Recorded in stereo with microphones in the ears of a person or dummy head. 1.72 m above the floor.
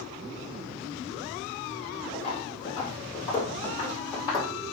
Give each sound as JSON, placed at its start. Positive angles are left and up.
{"t": 2.1, "sound": "footsteps", "side_deg": 35, "distance_m": 4.0}